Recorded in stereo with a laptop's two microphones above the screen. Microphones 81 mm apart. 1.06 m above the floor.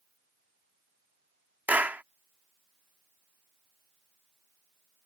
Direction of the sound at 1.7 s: 20° right (ahead or behind).